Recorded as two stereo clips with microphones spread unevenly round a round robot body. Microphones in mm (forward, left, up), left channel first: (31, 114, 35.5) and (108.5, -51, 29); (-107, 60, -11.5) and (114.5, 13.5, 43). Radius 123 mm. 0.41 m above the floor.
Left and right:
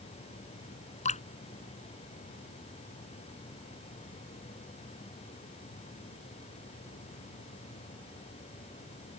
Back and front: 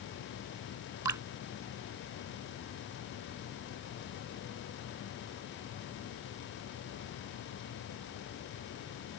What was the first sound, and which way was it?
Dripping, 65° left.